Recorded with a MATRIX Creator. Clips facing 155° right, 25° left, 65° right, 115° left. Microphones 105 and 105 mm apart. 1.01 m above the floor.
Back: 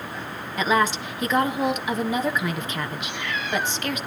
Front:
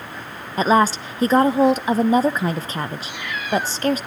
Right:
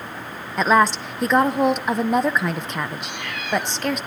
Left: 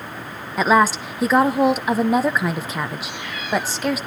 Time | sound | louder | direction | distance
0.6 | a woman speaking | front 5 dB, left 1 dB | 30° left | 0.6 m
3.0 | a cat meowing | even, even | 60° right | 3 m